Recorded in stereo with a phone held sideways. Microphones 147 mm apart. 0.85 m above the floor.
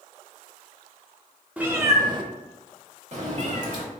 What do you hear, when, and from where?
1.6 s a cat meowing: 10° right (ahead or behind), 0.6 m; by 3.8 s 50° right (ahead or behind), 1.2 m